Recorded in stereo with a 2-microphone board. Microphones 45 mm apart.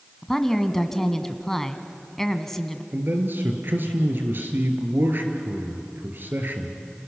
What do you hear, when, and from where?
0.2 s a woman speaking: 10° left (ahead or behind), 1.4 m
2.9 s a man speaking: 55° right (ahead or behind), 3 m